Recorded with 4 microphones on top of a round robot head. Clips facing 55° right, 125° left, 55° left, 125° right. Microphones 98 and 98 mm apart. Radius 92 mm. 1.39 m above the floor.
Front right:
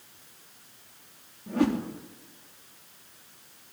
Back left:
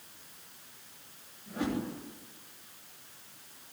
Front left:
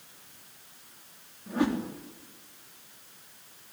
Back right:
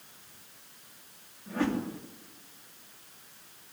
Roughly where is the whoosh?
Ahead.